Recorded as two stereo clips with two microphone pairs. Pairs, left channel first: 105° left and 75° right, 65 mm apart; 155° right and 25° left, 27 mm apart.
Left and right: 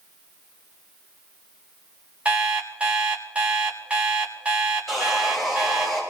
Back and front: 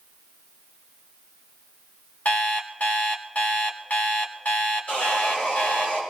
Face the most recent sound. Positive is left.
turn(degrees=-170)